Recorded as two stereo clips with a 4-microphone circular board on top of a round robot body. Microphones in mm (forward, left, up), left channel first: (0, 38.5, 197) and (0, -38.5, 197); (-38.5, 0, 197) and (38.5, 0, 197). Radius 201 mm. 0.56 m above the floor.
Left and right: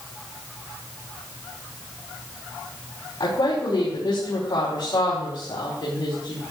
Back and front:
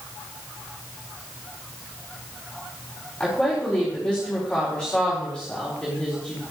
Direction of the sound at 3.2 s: 100° left.